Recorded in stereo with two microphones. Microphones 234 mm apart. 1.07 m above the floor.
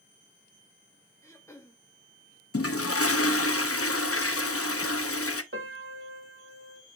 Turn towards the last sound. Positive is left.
turn(degrees=-60)  # may be behind; listen again after turning